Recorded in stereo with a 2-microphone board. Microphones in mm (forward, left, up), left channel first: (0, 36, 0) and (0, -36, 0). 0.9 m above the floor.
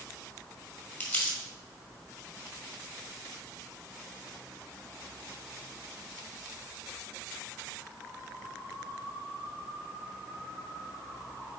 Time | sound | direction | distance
1.0 | crumpling | 20° left (ahead or behind) | 1.8 m